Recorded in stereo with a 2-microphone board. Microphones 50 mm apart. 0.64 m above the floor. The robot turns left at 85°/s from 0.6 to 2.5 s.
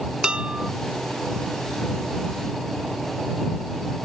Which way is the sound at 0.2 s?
20° right (ahead or behind).